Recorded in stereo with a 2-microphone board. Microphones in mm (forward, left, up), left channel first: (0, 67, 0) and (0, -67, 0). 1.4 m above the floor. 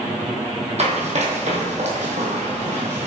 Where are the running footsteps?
55° right (ahead or behind), 2.5 m.